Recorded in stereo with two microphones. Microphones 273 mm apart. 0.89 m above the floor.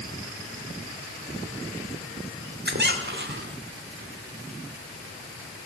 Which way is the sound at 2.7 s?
40° right (ahead or behind).